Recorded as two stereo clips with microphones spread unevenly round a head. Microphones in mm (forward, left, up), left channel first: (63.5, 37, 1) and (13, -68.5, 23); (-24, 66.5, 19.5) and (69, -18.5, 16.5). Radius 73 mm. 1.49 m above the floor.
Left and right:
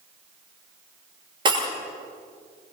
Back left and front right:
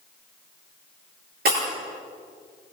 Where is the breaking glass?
65° right, 9.5 m.